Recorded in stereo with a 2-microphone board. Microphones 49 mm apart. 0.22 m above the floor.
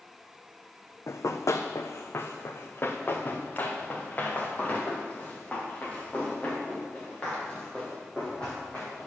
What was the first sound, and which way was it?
Running footsteps, 75° left (ahead or behind).